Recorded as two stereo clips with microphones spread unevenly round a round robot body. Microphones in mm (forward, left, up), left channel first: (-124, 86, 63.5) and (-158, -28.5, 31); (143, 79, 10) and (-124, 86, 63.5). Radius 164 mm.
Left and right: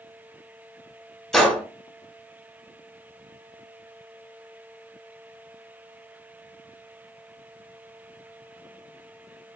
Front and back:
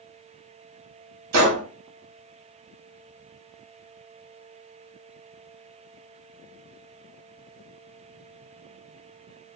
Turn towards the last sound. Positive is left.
turn(degrees=160)